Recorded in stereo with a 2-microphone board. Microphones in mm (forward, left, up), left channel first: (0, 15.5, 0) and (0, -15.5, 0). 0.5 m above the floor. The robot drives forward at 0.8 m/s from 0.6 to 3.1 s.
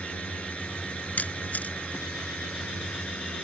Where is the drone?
50° left (ahead or behind); by 3.5 s 55° left (ahead or behind).